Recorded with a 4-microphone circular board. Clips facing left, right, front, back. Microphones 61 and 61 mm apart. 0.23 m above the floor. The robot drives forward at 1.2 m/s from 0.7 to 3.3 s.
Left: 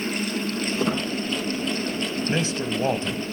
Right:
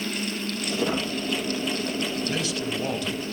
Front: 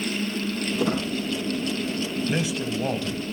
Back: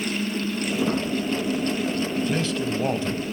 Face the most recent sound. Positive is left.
turn(degrees=145)